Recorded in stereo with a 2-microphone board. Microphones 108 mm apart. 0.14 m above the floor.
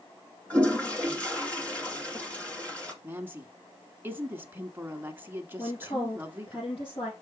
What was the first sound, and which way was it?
A toilet flushing, 10° left (ahead or behind).